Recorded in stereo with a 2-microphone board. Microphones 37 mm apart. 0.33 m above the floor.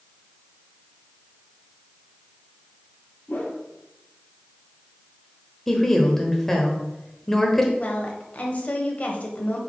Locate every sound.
3.3 s a whoosh: 60° left (ahead or behind), 2.5 m
5.7 s a woman speaking: 10° left (ahead or behind), 1.2 m
7.8 s a woman speaking: 40° left (ahead or behind), 1.3 m